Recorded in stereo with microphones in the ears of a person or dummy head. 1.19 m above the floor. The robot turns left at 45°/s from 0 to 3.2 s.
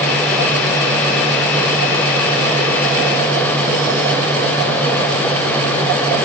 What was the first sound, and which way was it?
Only background noise.